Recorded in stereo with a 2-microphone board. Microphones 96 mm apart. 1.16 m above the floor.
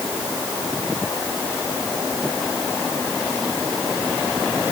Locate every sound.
Only background noise.